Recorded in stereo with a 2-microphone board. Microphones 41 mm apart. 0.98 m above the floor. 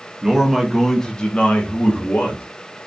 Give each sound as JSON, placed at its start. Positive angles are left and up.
{"t": 0.2, "sound": "a man speaking", "side_deg": -15, "distance_m": 0.8}